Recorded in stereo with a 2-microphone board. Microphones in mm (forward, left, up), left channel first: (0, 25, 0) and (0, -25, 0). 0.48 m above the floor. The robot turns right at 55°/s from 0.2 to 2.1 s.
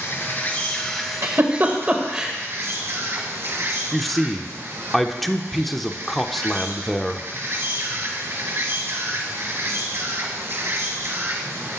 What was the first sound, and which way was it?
An insect, 130° left.